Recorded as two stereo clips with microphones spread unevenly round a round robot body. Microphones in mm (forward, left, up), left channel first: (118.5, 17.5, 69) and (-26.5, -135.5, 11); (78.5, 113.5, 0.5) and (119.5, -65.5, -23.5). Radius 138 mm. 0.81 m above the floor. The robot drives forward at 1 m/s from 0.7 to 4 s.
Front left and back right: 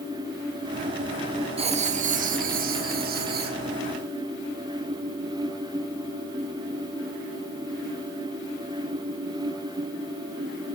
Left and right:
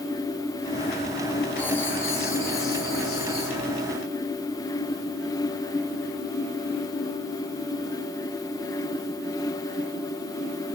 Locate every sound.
1.6 s writing: 170° right, 1.0 m; by 3.6 s 175° right, 3 m